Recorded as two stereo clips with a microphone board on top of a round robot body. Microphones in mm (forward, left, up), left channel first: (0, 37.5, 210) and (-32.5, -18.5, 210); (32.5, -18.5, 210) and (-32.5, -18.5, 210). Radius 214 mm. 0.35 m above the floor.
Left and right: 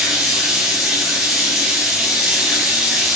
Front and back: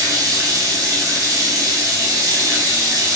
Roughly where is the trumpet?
No trumpet in this recording.